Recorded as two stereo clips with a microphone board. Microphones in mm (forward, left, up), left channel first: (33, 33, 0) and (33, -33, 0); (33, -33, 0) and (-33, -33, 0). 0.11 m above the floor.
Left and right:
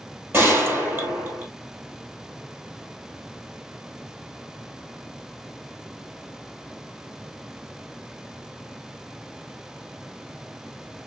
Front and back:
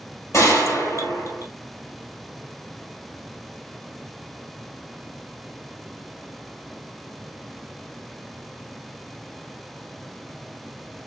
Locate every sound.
0.3 s a gunshot: 35° right, 2 m